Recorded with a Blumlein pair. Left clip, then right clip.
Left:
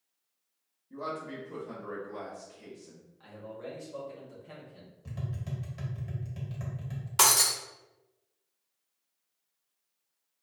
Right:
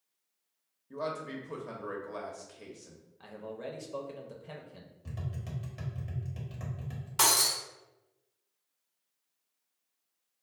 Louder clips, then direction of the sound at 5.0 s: Left 2 dB; 5° right.